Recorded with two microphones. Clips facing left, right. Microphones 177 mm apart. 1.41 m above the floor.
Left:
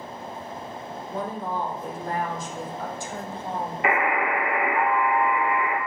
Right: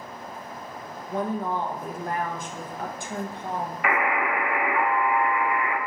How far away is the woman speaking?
About 1.0 m.